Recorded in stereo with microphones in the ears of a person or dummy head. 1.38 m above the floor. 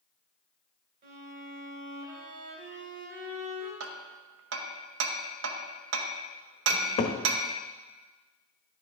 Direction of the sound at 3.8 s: 85° right.